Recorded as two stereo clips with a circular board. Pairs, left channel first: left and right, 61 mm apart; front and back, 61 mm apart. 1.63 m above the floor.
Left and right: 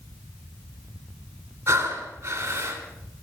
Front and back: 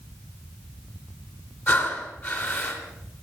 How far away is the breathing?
About 3 m.